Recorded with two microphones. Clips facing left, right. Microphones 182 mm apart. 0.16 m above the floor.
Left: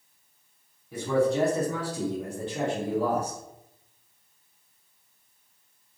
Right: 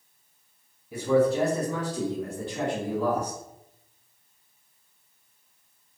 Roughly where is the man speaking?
Centre.